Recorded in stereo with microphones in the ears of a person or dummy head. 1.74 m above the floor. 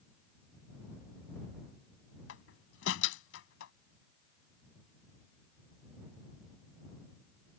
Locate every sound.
2.3 s a door slam: 85° left